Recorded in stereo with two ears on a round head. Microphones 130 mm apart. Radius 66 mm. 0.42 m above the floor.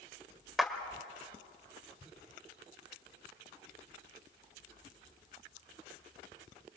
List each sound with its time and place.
0.6 s a clap: centre (ahead or behind), 1.4 m